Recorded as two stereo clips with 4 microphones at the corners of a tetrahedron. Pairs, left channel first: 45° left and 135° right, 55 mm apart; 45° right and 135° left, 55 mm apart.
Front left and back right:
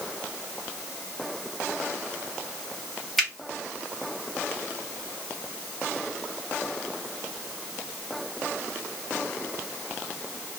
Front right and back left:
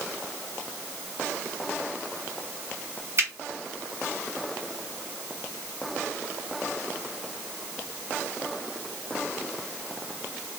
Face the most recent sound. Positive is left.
turn(degrees=125)